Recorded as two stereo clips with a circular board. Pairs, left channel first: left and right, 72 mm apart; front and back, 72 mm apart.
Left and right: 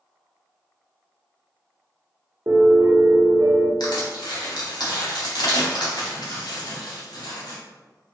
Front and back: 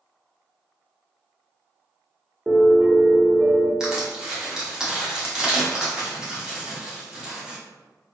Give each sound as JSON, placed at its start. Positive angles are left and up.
{"t": 2.5, "sound": "a piano", "azimuth_deg": -105, "distance_m": 0.8}
{"t": 3.8, "sound": "crushing", "azimuth_deg": 100, "distance_m": 1.0}